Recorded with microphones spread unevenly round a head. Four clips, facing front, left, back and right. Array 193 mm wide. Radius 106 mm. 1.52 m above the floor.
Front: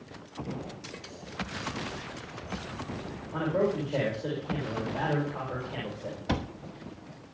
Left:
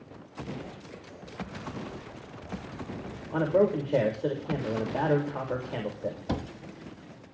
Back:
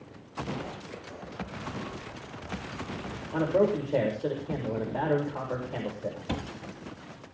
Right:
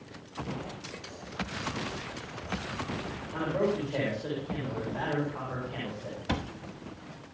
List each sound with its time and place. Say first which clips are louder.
3.3 s a man speaking: left 5 dB, back 3 dB; 115° left, 7 m
6.3 s a cupboard door: right 3 dB, front 7 dB; 75° left, 0.9 m